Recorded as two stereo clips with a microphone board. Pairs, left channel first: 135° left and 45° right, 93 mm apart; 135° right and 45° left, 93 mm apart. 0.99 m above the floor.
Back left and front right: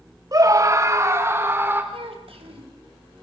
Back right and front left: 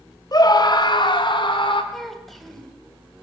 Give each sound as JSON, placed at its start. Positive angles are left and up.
{"t": 0.3, "sound": "a scream", "azimuth_deg": -90, "distance_m": 2.0}
{"t": 1.9, "sound": "a child speaking", "azimuth_deg": -45, "distance_m": 3.0}